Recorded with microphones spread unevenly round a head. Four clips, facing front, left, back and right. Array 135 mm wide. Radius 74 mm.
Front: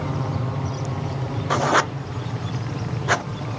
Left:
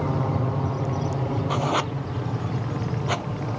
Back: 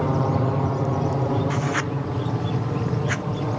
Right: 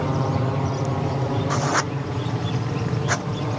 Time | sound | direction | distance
0.0 | an aircraft | 165° right | ?
1.5 | writing | 5° left | ?